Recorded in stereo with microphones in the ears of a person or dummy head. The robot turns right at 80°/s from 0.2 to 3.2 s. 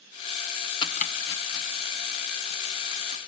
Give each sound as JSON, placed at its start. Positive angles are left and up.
{"t": 0.8, "sound": "chopping", "side_deg": 25, "distance_m": 1.3}